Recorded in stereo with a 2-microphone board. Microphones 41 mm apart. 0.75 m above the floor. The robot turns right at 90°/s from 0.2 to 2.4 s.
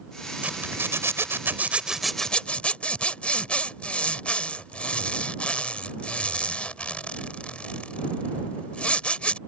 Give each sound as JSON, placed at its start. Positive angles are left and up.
{"t": 0.4, "sound": "a zipper", "side_deg": -35}